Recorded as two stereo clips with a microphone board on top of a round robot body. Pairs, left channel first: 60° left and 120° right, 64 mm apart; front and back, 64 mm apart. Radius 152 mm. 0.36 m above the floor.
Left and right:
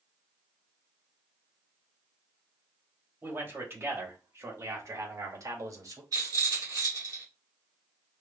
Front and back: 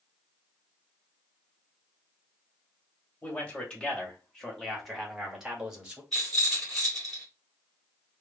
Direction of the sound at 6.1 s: 90° right.